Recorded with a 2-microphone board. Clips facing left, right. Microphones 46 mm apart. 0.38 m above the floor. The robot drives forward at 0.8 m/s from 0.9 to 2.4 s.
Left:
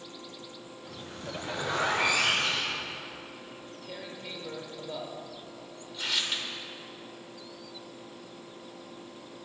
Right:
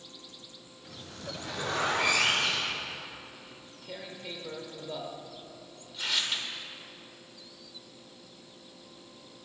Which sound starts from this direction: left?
A zipper, at 1.1 s.